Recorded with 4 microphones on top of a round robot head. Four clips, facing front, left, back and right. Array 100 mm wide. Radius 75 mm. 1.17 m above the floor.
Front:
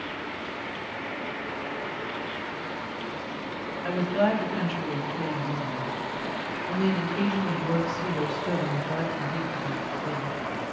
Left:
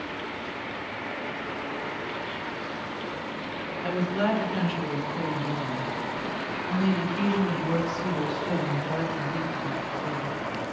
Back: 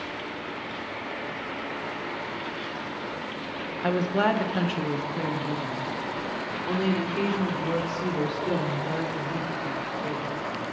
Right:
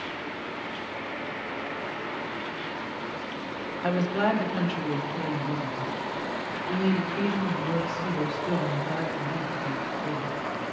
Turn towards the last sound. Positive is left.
turn(degrees=160)